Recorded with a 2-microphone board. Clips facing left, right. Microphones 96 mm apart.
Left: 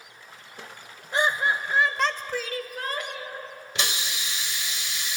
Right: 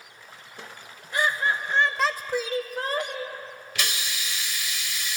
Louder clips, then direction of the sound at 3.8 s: Left 1 dB; 25° left (ahead or behind).